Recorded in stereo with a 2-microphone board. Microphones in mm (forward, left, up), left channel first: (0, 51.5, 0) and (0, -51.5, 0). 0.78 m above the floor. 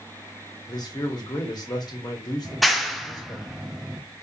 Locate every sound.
0.7 s a man speaking: 40° left (ahead or behind), 1.3 m
2.5 s a clap: centre (ahead or behind), 0.5 m